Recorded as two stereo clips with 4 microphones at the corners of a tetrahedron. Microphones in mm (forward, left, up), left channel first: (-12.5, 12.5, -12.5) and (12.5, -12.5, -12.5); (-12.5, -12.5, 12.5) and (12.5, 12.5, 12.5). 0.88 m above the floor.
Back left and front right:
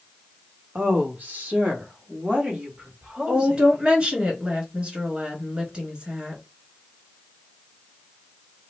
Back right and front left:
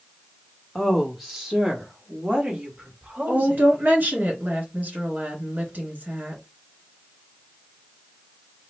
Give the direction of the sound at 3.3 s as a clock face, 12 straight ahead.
12 o'clock.